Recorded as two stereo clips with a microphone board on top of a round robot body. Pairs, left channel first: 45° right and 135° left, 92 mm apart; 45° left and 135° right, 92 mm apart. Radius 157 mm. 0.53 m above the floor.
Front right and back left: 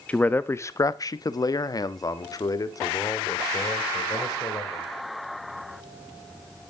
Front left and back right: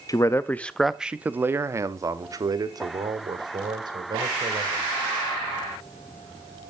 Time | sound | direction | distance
0.1 | a man speaking | 25° left | 0.8 m